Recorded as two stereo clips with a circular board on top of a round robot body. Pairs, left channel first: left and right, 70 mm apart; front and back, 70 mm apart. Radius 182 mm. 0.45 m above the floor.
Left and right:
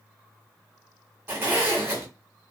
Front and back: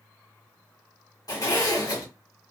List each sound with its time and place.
1.3 s a zipper: 30° right, 1.6 m